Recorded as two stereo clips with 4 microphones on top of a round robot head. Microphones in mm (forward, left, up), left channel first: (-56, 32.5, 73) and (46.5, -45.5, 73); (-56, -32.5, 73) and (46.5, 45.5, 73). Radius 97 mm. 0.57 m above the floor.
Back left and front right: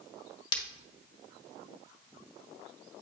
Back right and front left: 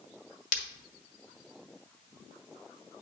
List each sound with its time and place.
0.5 s breaking glass: 165° right, 1.3 m